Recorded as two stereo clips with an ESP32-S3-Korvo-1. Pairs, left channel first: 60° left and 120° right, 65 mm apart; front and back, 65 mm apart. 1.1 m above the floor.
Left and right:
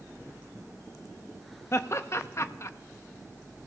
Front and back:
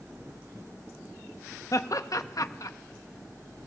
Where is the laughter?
20° left, 0.7 m.